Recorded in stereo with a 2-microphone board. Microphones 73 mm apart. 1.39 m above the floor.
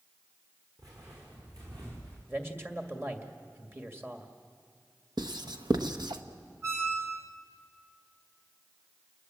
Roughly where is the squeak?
Right.